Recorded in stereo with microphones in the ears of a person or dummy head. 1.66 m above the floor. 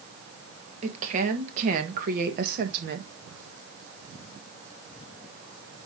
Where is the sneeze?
No sneeze in this recording.